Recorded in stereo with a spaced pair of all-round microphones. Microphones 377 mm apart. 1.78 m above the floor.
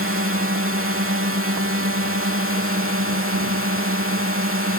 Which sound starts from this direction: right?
A drone, at 0.0 s.